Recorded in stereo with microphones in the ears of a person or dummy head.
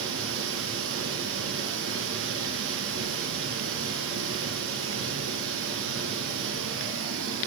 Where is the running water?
75° right (ahead or behind), 4.5 m.